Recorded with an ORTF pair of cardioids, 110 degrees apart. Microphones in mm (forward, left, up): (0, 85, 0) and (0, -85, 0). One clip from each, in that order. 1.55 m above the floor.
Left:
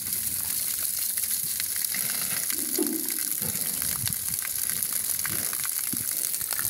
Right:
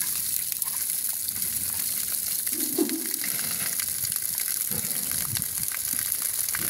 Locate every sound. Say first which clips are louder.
2.5 s a whoosh: right 4 dB; 15° right, 2.5 m